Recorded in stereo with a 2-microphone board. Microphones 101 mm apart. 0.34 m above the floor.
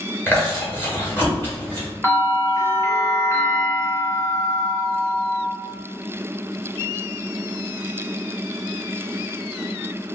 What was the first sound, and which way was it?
Chewing, 20° left (ahead or behind).